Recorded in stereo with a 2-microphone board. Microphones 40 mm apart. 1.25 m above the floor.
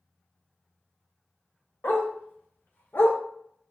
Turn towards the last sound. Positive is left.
turn(degrees=65)  # may be behind; listen again after turning